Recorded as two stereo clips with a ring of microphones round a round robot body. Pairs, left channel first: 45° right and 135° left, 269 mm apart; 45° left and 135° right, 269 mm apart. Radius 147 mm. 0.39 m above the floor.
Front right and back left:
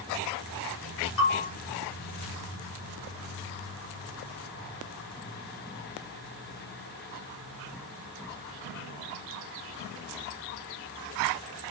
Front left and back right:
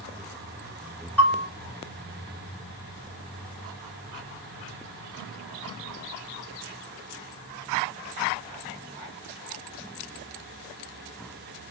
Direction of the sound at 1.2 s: 40° right.